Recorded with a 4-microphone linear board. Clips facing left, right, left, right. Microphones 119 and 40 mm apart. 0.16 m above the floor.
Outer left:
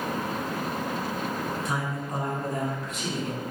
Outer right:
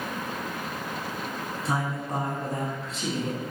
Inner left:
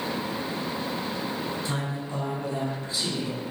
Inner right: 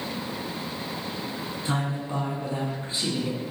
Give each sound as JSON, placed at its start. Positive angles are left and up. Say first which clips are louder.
{"t": 1.6, "sound": "a man speaking", "louder": "outer right 1 dB, inner right 2 dB", "side_deg": -30, "distance_m": 1.2}